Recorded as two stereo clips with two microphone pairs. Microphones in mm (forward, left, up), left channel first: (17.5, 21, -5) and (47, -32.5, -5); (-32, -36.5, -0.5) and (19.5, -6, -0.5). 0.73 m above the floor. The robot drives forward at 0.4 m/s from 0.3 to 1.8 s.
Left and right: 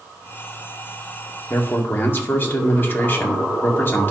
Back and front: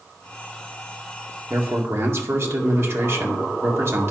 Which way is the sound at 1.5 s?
65° left.